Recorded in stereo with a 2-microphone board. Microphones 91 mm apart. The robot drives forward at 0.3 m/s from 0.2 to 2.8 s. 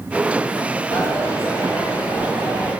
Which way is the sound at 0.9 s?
35° right (ahead or behind).